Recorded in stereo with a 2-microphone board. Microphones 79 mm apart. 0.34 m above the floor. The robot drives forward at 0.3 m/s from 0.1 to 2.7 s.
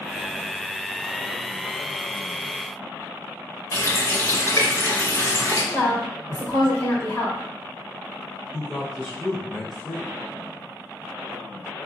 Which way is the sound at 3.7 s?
40° left (ahead or behind).